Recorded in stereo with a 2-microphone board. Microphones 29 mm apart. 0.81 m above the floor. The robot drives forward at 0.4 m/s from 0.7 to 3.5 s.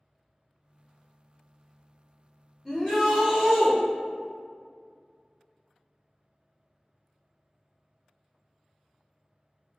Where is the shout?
10° left (ahead or behind), 0.8 m.